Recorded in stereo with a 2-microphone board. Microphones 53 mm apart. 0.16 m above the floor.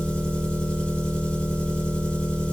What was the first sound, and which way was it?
An engine running, 15° left (ahead or behind).